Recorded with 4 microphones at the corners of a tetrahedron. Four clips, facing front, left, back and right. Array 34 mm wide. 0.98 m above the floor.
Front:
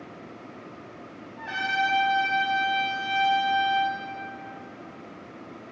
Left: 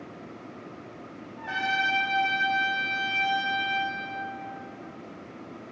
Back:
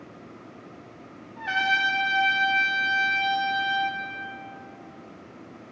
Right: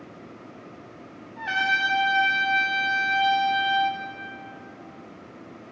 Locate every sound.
1.4 s a trumpet: 115° right, 2.5 m